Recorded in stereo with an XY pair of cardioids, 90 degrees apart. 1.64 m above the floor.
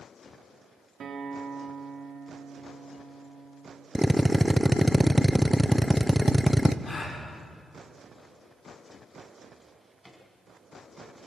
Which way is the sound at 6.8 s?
40° left.